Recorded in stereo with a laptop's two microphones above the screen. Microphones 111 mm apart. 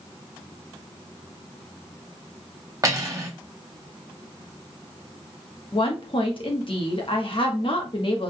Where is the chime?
I don't hear a chime.